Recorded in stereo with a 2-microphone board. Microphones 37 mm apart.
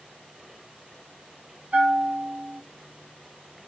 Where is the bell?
35° right (ahead or behind), 1.3 m.